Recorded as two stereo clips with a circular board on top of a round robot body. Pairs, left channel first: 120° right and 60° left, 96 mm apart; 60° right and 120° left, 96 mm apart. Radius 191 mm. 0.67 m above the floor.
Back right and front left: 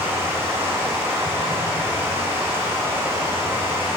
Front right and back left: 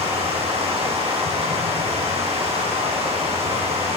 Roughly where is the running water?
Behind left.